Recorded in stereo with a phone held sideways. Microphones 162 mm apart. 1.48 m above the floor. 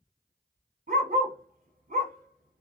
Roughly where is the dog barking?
Right.